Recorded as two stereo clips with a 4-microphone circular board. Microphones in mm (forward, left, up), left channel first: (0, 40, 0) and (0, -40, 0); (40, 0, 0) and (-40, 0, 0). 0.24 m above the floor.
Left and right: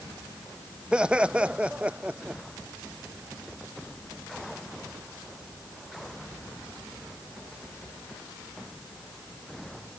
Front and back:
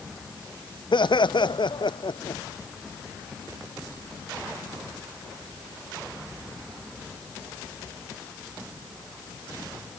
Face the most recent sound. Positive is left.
turn(degrees=-15)